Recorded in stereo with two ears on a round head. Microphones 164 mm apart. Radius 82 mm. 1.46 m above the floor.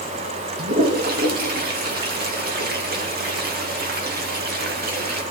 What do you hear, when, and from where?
0.6 s a toilet flushing: 55° right (ahead or behind), 2.5 m